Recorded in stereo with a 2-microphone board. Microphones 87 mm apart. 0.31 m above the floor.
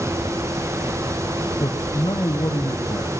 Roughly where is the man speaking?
Left.